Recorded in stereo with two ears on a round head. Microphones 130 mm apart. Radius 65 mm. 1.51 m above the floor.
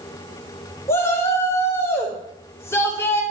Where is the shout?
20° left (ahead or behind), 4.5 m.